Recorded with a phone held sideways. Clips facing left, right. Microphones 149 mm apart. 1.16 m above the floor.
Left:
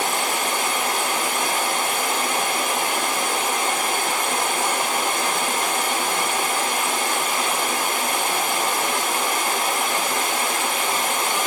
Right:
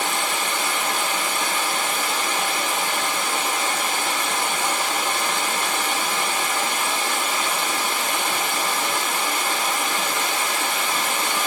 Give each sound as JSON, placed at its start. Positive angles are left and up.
{"t": 0.0, "sound": "running water", "side_deg": 50, "distance_m": 1.9}